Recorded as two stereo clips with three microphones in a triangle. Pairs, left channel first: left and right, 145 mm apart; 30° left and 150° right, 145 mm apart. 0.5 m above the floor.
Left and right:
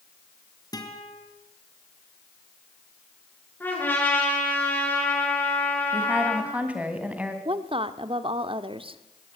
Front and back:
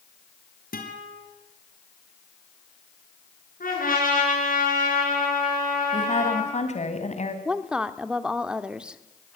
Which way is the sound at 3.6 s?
15° left.